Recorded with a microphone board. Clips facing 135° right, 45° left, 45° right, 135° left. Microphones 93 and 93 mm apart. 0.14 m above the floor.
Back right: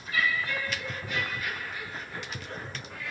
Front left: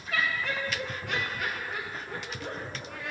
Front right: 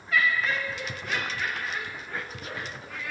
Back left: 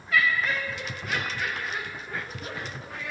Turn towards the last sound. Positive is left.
turn(degrees=70)